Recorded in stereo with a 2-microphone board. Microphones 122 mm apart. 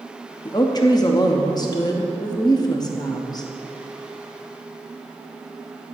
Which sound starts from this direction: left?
A woman speaking, at 0.5 s.